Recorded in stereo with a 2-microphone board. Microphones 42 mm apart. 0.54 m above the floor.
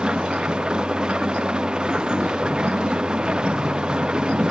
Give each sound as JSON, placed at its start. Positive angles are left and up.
{"t": 0.0, "sound": "an engine running", "side_deg": -20}